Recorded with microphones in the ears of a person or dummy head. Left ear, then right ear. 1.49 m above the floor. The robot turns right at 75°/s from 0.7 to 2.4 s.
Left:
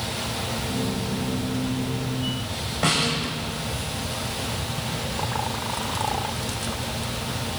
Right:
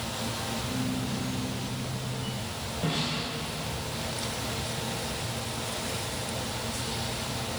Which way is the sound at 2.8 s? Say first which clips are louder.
Left 9 dB; 55° left (ahead or behind).